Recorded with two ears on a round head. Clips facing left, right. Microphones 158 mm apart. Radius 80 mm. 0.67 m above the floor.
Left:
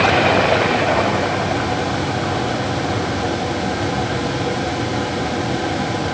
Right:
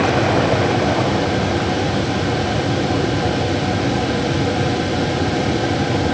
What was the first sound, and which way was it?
Only background noise.